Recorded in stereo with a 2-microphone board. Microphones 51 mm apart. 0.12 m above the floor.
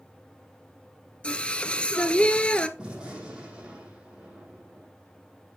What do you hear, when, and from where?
1.2 s singing: 20° left (ahead or behind), 0.7 m
2.8 s a gunshot: 20° right (ahead or behind), 6 m